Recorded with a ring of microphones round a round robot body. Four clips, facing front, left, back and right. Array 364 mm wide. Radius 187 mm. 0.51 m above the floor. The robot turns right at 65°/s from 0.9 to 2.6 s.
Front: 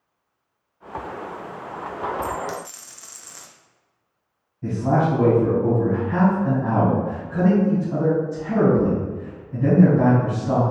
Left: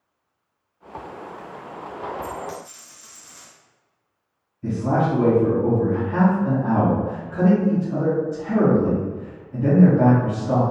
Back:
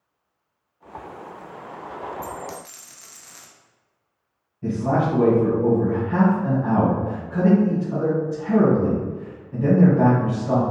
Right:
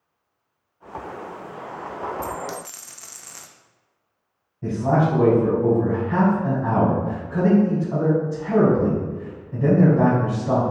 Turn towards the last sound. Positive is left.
turn(degrees=-90)